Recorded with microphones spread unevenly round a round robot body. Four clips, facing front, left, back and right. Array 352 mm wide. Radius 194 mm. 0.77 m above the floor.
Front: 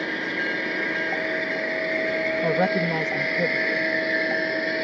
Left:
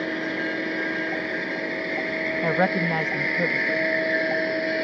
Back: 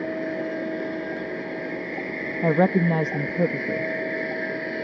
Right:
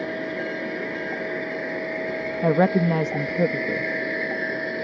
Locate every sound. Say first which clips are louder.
2.4 s a woman speaking: right 5 dB, back 5 dB; 140° right